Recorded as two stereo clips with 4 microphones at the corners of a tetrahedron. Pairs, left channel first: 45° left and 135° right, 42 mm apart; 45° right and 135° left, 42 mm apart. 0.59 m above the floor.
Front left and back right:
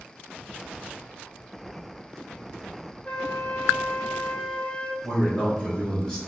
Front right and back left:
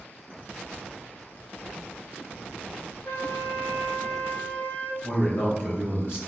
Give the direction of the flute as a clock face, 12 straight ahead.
1 o'clock.